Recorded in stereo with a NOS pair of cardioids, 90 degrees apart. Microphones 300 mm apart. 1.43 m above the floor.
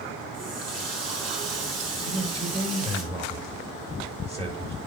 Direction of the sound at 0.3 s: 55° right.